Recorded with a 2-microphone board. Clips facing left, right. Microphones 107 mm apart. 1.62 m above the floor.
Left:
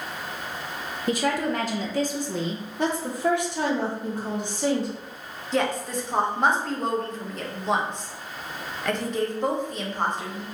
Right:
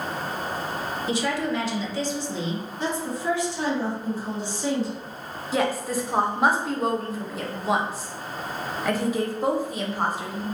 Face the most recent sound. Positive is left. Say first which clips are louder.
# right 1 dB
turn(degrees=-5)  # may be behind; listen again after turning